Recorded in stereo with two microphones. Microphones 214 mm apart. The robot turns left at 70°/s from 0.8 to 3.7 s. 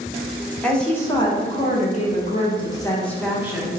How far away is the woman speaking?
About 0.8 m.